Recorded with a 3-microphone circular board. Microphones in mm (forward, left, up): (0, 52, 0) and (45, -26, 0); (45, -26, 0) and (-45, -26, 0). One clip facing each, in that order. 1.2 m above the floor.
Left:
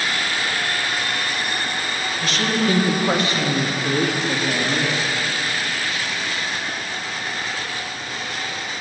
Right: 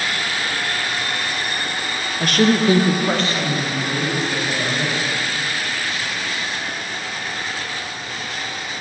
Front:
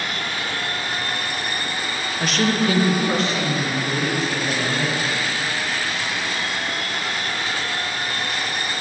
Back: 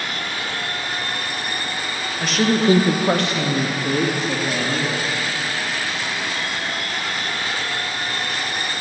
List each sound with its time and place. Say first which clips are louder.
2.2 s a woman speaking: right 6 dB, back 2 dB; 85° right, 1.1 m; by 4.9 s 155° left, 3 m